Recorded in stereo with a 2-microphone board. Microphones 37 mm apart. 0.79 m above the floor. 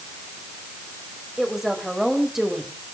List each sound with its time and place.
1.4 s a woman speaking: 10° right (ahead or behind), 3.5 m